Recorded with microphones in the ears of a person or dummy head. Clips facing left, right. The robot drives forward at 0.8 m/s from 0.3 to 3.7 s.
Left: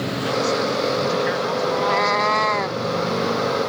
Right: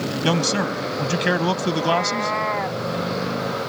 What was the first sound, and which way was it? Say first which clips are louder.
A man speaking: left 1 dB; 80° right.